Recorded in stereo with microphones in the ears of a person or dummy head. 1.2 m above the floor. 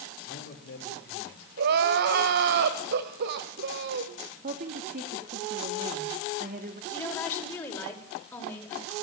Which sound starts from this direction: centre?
A woman speaking, at 6.9 s.